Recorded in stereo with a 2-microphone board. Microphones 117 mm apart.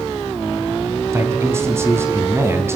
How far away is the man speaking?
About 3 m.